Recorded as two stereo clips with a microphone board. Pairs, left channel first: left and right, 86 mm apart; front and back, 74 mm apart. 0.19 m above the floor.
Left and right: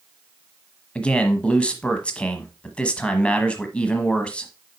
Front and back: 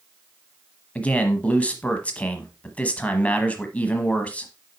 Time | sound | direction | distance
0.9 | a man speaking | 40° left | 1.1 m